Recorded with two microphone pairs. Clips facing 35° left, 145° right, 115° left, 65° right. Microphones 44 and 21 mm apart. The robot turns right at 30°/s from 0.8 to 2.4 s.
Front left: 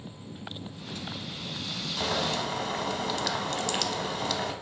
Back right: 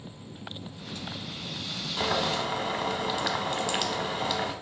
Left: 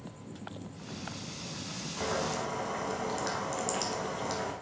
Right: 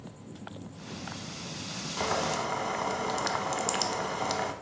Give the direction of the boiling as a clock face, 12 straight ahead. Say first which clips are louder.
Back right 2 dB, right 3 dB; 3 o'clock.